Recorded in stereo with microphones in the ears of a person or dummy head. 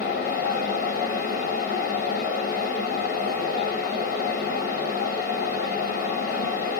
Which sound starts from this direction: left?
A fan, at 0.0 s.